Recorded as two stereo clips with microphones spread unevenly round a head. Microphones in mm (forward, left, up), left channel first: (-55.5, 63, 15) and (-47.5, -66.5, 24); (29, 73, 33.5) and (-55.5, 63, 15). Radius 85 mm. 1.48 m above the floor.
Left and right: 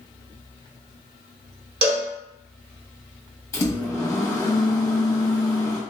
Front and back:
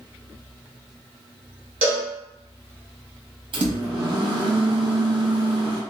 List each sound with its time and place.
1.8 s a cowbell: 120° right, 0.7 m
3.5 s a microwave: 160° left, 1.0 m